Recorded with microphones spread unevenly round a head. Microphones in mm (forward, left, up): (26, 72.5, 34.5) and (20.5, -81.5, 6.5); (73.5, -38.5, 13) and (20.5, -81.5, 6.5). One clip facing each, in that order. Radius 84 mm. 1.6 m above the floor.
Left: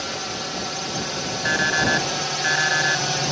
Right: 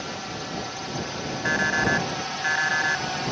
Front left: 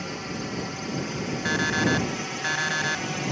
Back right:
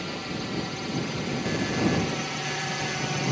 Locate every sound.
0.0 s a drone: 120° left; by 3.3 s 130° left
1.4 s an alarm clock: 45° left